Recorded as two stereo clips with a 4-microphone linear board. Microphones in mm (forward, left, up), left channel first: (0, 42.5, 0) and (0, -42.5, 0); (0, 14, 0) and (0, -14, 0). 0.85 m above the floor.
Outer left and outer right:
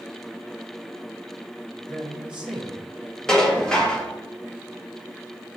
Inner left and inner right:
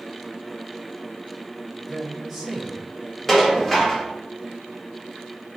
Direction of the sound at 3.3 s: 10° left (ahead or behind).